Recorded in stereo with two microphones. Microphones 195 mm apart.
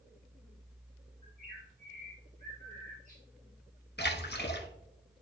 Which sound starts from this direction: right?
A bird, at 1.2 s.